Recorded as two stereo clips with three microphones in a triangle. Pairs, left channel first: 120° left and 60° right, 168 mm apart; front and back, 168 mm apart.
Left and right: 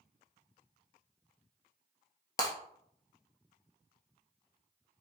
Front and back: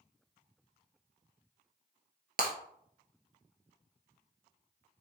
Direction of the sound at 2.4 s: 170° right.